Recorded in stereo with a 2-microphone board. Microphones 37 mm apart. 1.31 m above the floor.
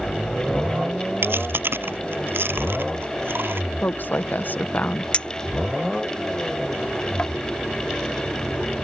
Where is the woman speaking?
55° left (ahead or behind).